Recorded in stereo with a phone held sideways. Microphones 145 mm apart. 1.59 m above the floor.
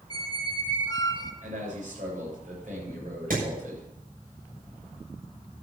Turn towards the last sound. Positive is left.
turn(degrees=-70)  # may be behind; listen again after turning